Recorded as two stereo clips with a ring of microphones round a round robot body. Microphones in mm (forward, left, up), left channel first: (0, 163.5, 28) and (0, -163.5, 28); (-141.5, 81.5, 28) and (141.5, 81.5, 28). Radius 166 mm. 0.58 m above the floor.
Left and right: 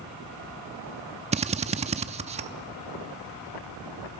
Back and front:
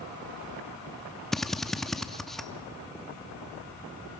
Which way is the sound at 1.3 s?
95° right.